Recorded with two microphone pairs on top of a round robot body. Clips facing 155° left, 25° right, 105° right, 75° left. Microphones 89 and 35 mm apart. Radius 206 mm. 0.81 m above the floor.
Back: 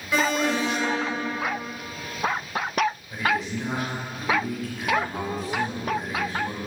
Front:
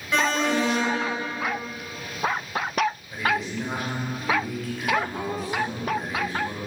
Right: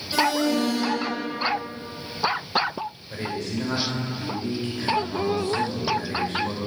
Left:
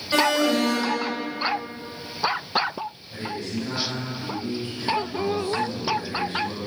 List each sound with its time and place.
0.1 s an alarm: 75° left, 1.8 m
3.1 s a man speaking: 115° right, 3.5 m